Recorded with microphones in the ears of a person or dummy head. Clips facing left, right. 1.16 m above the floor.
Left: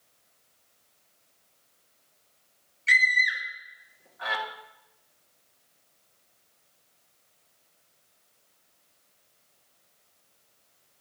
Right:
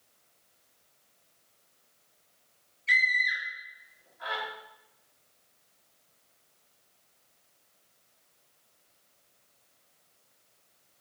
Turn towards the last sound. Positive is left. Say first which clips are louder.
# left 4 dB
turn(degrees=75)  # may be behind; listen again after turning